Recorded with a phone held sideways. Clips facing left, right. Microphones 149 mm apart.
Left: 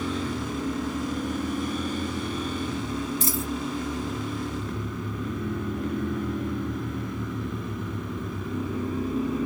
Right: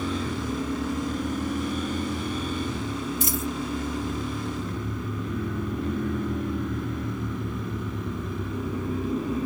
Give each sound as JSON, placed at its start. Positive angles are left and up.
{"t": 3.2, "sound": "a dropped coin", "side_deg": 35, "distance_m": 3.0}